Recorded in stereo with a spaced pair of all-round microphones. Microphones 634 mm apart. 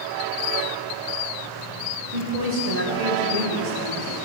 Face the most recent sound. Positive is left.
turn(degrees=-75)  # may be behind; listen again after turning